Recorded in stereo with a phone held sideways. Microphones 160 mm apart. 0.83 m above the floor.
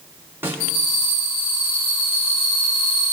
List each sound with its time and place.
0.4 s a snare drum: 15° right (ahead or behind), 7 m